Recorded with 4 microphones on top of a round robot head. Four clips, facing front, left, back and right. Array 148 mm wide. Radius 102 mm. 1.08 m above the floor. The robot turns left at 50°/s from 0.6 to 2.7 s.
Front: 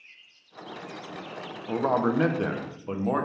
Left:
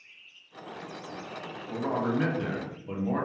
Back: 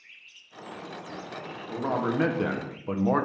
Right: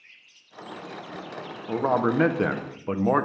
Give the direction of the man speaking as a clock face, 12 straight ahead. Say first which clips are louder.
Right 6 dB, front 4 dB; 2 o'clock.